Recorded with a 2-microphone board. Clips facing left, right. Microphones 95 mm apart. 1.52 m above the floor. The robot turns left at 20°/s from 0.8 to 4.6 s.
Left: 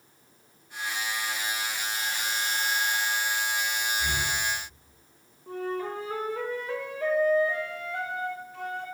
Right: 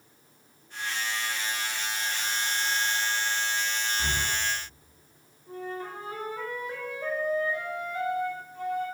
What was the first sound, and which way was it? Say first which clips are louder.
Breathing: even; 40° right (ahead or behind).